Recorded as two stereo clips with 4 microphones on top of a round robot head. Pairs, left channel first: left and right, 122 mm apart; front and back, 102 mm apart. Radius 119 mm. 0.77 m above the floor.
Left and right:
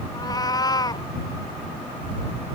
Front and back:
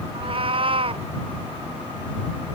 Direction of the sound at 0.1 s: 150° left.